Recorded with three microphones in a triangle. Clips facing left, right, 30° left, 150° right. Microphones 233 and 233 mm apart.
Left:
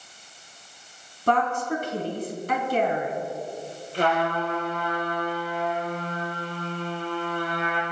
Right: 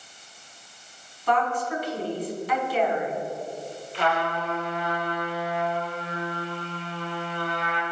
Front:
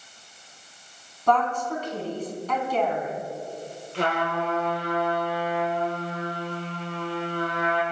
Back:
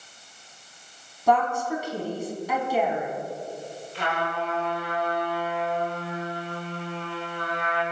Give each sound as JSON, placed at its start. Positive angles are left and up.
{"t": 1.3, "sound": "a woman speaking", "azimuth_deg": 130, "distance_m": 4.0}
{"t": 3.9, "sound": "a trumpet", "azimuth_deg": 45, "distance_m": 7.0}